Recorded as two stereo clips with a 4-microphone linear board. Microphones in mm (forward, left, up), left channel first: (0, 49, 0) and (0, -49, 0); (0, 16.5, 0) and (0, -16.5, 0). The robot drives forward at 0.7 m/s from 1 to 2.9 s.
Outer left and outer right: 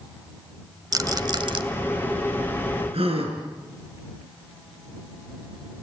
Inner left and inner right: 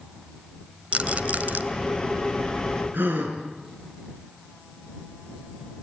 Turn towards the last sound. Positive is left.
turn(degrees=-75)  # may be behind; listen again after turning